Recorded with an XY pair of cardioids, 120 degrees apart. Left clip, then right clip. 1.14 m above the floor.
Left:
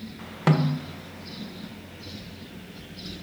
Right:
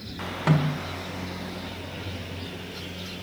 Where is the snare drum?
25° left, 0.7 m.